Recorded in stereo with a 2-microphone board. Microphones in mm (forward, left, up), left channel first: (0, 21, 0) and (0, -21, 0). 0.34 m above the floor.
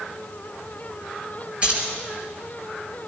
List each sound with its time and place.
1.6 s keys jangling: 30° right (ahead or behind), 4.5 m